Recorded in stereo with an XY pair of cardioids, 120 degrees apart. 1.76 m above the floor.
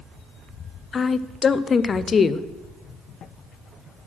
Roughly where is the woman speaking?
Ahead left.